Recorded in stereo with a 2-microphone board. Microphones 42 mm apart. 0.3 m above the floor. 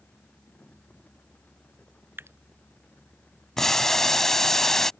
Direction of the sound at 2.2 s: 65° right (ahead or behind).